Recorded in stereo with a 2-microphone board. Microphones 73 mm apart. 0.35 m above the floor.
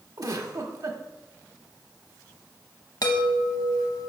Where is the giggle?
60° right (ahead or behind), 1.1 m.